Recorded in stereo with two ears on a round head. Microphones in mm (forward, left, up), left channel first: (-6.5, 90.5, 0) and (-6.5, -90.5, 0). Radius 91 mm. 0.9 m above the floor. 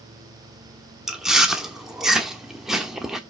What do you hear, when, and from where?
1.1 s chewing: centre (ahead or behind), 1.1 m